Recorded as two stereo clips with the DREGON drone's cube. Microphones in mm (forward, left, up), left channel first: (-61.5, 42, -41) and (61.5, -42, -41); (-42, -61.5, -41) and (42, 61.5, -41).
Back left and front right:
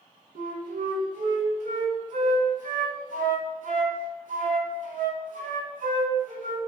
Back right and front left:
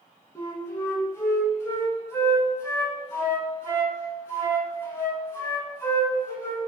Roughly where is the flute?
Ahead right.